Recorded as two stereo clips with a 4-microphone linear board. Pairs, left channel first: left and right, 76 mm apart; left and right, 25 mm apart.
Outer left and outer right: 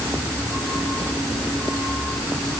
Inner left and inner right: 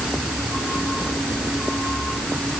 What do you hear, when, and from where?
Only background noise.